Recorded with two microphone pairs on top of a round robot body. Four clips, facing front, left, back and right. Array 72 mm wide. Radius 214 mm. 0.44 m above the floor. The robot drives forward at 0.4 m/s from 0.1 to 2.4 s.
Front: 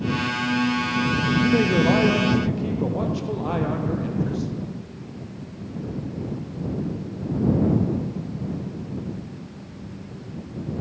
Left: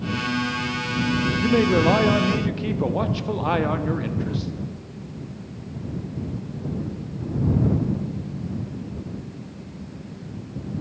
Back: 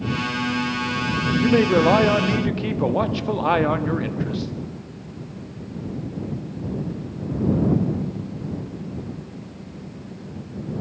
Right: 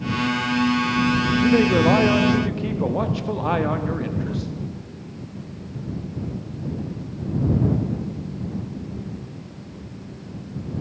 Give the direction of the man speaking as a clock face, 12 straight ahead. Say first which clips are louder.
Right 1 dB, back 4 dB; 6 o'clock.